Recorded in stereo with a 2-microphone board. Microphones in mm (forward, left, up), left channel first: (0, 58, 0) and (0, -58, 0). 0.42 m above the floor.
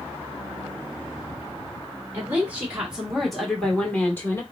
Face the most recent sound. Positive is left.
turn(degrees=20)  # may be behind; listen again after turning